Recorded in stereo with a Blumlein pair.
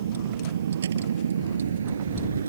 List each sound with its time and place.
0.0 s a vehicle: 65° right; by 2.5 s 75° right